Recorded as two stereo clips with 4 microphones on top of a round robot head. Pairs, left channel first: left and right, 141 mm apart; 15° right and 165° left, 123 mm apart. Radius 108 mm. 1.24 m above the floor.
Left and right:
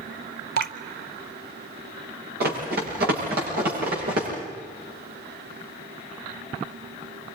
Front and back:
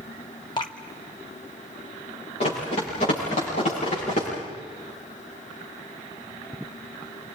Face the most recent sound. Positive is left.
turn(degrees=-60)